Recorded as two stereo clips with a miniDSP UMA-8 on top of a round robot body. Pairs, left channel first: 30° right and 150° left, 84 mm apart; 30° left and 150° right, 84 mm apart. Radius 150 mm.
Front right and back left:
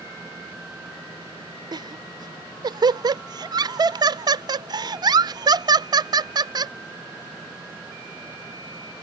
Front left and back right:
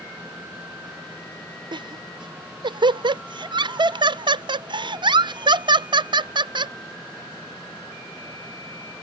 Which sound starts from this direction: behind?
Laughter, at 1.7 s.